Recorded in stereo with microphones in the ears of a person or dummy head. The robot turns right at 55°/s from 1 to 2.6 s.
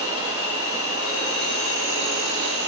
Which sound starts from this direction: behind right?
An insect, at 0.0 s.